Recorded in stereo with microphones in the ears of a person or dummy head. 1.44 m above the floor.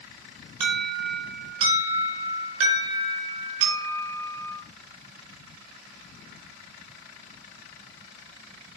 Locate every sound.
0.6 s an alarm: 75° right (ahead or behind), 4.5 m